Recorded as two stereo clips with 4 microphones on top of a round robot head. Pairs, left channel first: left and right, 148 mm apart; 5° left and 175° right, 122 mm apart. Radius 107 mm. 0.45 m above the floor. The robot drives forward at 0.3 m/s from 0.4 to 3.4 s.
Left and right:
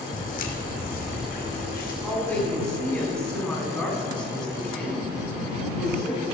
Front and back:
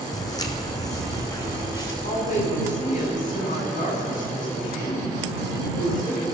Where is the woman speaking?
5° left, 4.5 m.